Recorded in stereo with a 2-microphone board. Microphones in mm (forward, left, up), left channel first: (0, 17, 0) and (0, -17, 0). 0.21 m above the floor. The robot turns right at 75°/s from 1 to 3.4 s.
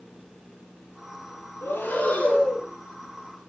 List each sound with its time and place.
1.6 s breathing: 85° left, 6.5 m; by 2.7 s 165° left, 6.5 m